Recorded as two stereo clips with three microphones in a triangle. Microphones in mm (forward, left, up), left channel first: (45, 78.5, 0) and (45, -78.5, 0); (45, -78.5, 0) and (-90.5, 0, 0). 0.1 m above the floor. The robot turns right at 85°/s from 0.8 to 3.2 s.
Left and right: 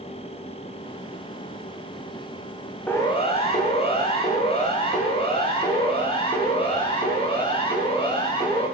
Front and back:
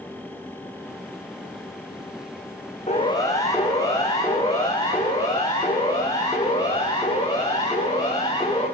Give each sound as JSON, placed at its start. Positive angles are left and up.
{"t": 2.9, "sound": "a siren", "azimuth_deg": 10, "distance_m": 8.0}